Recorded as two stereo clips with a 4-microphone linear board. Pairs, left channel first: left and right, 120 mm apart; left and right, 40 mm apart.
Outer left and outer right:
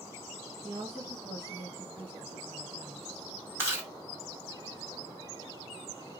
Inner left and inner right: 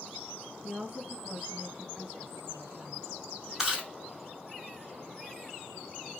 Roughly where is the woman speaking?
Right.